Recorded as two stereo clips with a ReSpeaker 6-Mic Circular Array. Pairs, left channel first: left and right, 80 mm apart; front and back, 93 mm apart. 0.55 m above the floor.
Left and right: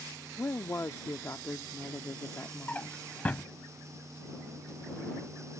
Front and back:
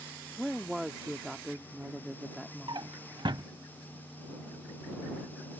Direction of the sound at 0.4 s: 95° left.